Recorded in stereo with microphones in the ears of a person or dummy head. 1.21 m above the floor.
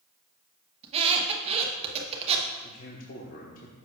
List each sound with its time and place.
0.8 s a squeak: 30° right (ahead or behind), 0.9 m
2.6 s a man speaking: 45° left (ahead or behind), 0.9 m